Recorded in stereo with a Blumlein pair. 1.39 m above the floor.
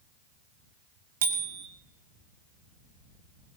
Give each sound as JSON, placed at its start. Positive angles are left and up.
{"t": 1.2, "sound": "a bicycle bell", "azimuth_deg": -60, "distance_m": 2.0}